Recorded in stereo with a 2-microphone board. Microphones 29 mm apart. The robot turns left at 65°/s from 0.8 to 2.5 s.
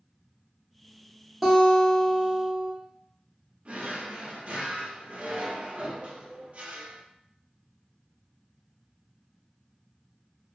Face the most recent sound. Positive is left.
turn(degrees=-45)  # may be behind; listen again after turning